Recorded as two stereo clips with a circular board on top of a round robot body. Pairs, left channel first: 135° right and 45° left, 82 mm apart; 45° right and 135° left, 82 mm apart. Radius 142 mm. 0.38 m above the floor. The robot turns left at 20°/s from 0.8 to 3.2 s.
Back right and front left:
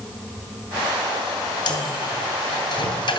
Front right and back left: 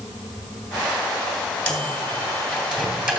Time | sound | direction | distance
1.7 | a microwave | 120° right | 2.5 m